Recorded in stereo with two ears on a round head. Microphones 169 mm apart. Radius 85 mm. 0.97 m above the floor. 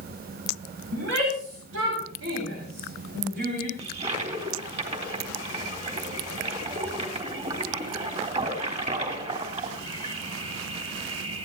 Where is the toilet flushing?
35° right (ahead or behind), 3.5 m.